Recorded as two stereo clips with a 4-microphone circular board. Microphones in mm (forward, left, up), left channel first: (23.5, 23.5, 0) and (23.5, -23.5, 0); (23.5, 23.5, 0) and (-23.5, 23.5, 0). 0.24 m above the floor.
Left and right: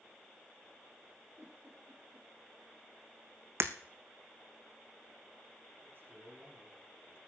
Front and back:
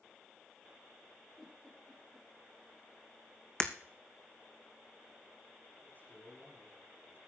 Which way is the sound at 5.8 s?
50° right.